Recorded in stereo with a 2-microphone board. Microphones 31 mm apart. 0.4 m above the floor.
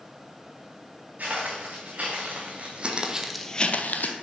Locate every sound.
1.2 s footsteps: 50° right (ahead or behind), 3 m; by 4.1 s 70° left (ahead or behind), 0.9 m